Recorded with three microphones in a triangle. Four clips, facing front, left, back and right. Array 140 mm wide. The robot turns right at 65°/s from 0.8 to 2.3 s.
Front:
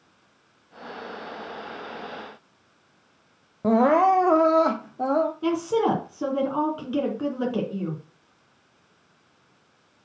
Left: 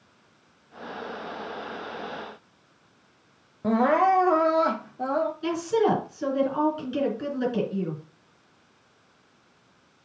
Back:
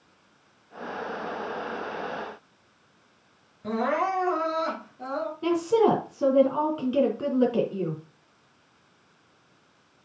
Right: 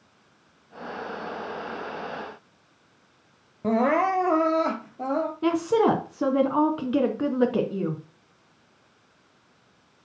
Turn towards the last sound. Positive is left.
turn(degrees=-85)